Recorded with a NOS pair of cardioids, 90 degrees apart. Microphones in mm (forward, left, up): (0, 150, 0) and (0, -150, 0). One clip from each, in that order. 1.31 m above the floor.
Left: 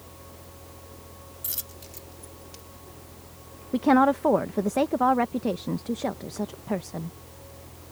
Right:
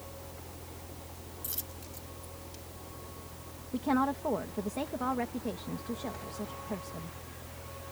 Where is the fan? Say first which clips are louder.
Even; 5° right.